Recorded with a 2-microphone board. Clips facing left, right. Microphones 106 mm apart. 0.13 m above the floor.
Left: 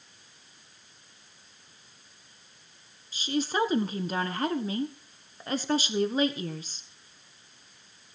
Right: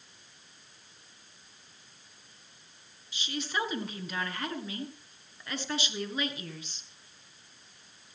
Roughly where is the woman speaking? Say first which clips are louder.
Left 6 dB; left.